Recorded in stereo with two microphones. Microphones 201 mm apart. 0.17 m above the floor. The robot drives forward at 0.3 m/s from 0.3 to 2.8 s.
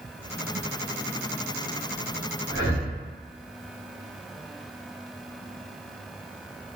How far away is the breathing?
About 1.9 m.